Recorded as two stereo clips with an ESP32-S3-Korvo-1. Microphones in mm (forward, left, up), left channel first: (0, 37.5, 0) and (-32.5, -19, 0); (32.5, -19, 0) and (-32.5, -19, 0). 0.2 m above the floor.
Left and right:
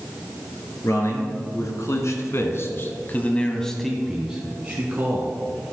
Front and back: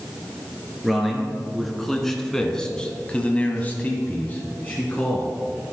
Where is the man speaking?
90° left, 2.5 m; by 5.4 s 65° right, 2.0 m.